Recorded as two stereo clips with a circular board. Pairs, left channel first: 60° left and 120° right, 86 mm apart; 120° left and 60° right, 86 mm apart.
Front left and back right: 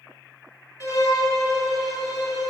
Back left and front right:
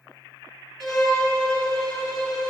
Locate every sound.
0.8 s a violin: 40° left, 1.3 m